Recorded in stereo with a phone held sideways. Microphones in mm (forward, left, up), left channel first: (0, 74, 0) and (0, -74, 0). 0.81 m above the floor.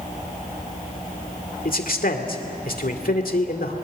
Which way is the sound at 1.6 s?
75° left (ahead or behind).